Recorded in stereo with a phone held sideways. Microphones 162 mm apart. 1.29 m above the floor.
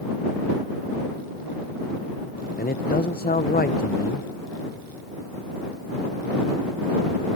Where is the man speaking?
65° left (ahead or behind).